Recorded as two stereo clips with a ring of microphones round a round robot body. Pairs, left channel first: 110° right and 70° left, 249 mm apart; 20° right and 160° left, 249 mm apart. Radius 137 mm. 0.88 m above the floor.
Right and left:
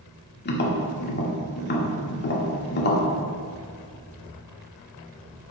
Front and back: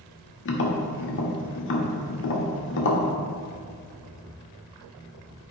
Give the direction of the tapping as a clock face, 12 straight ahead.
2 o'clock.